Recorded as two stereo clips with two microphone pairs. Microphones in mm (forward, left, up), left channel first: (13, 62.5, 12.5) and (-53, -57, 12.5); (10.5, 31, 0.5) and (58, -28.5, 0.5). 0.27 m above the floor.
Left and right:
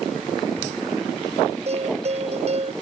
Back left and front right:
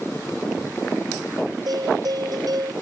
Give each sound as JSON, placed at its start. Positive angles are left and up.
{"t": 1.7, "sound": "a bell", "azimuth_deg": -80}